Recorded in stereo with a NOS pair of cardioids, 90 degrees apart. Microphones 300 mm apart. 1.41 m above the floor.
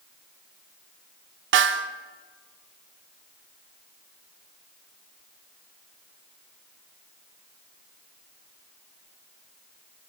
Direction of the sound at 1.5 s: 45° right.